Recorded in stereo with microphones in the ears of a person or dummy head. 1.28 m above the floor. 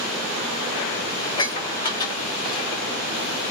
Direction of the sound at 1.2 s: 20° left (ahead or behind).